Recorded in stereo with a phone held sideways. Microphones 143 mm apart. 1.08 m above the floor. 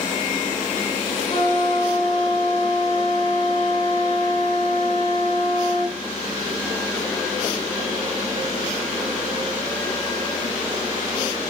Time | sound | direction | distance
1.3 | a flute | 35° left (ahead or behind) | 1.9 m